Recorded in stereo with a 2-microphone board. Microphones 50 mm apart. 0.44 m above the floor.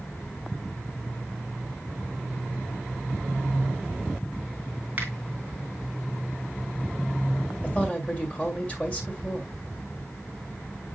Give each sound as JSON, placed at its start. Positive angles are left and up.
{"t": 5.0, "sound": "a finger snap", "side_deg": -35, "distance_m": 3.0}
{"t": 7.6, "sound": "a man speaking", "side_deg": 30, "distance_m": 1.8}